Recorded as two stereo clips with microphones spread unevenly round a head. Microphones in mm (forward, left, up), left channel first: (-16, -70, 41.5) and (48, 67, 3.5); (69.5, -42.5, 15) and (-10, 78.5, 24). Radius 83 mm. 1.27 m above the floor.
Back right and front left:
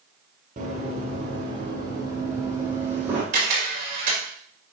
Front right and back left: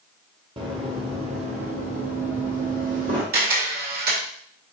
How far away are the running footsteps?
About 1.5 m.